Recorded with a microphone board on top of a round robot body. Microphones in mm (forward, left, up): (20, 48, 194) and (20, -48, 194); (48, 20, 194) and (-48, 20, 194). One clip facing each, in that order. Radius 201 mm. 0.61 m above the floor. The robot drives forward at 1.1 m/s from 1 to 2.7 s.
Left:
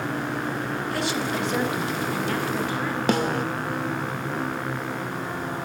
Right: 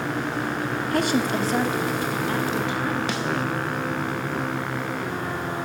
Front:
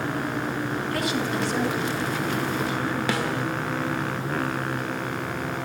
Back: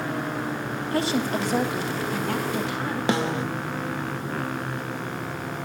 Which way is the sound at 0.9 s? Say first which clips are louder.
Right 6 dB, back 4 dB; 120° right.